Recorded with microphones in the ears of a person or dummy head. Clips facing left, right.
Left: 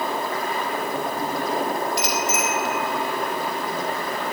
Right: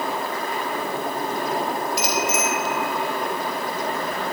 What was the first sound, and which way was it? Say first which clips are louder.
A bicycle bell: right 1 dB; 5° right (ahead or behind).